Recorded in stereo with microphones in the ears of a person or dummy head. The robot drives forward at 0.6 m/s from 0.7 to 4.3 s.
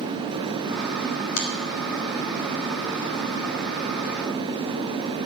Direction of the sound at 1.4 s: 85° left.